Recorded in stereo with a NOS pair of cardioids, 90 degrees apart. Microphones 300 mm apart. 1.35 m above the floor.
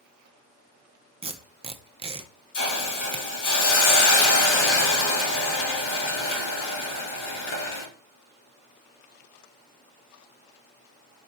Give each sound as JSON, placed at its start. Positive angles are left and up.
{"t": 1.2, "sound": "tape being pulled", "azimuth_deg": -20, "distance_m": 0.6}
{"t": 2.5, "sound": "a hiss", "azimuth_deg": 70, "distance_m": 2.0}